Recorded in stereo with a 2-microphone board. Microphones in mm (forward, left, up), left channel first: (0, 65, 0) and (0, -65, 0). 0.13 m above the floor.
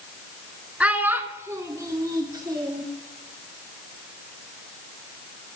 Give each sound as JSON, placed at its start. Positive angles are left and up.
{"t": 0.8, "sound": "a child speaking", "side_deg": -10, "distance_m": 0.7}